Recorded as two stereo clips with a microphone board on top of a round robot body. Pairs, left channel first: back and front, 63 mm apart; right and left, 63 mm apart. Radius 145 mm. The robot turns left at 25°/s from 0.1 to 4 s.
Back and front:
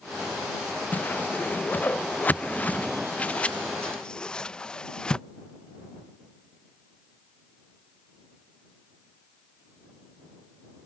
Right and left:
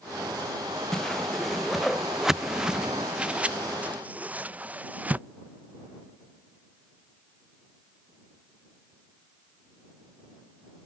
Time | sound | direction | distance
0.9 | a whoosh | 165° right | ?